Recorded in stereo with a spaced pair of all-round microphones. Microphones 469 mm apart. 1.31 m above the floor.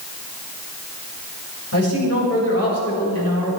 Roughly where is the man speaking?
Left.